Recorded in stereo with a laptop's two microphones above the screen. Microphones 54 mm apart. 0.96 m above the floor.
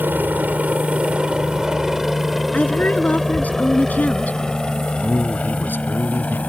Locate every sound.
0.0 s a helicopter: 35° right (ahead or behind); by 6.5 s 25° left (ahead or behind)
2.5 s a woman speaking: 30° left (ahead or behind)
5.0 s a man speaking: 35° left (ahead or behind)